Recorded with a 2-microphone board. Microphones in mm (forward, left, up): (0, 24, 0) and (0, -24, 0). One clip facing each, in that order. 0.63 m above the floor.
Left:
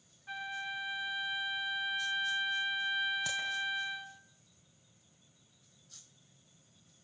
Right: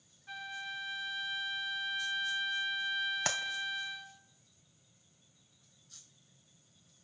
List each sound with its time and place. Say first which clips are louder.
0.3 s a flute: left 3 dB; 15° left (ahead or behind), 0.9 m
3.2 s a clap: right 1 dB; 70° right (ahead or behind), 2.5 m